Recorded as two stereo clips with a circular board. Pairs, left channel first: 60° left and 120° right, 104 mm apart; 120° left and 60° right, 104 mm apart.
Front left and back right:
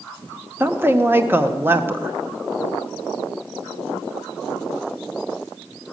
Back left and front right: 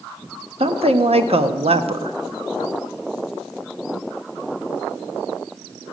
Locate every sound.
0.6 s a woman speaking: 50° right, 0.9 m